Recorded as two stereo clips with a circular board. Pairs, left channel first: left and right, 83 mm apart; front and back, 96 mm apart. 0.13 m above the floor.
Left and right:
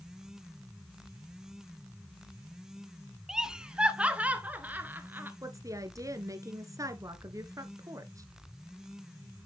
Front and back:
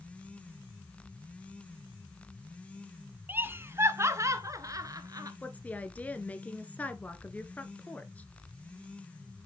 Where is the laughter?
160° right, 1.2 m; by 5.3 s 145° right, 1.8 m.